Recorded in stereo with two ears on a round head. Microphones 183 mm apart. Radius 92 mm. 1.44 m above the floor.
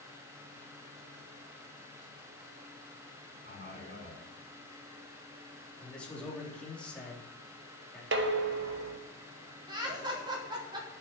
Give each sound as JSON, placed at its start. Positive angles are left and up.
{"t": 3.4, "sound": "a man speaking", "side_deg": -35, "distance_m": 7.0}
{"t": 5.8, "sound": "a man speaking", "side_deg": 5, "distance_m": 3.5}
{"t": 8.1, "sound": "dishes clattering", "side_deg": -60, "distance_m": 1.3}
{"t": 9.7, "sound": "laughter", "side_deg": -25, "distance_m": 4.5}